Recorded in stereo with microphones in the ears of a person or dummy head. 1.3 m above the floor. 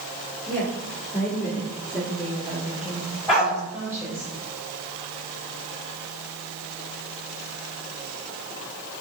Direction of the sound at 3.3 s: 5° right (ahead or behind).